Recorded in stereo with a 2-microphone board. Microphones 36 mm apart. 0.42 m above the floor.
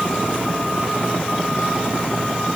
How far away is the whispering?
I don't hear whispering.